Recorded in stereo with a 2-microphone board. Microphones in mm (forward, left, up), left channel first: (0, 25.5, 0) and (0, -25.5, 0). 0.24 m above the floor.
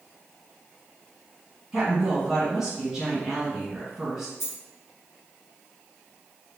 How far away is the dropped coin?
About 1.1 m.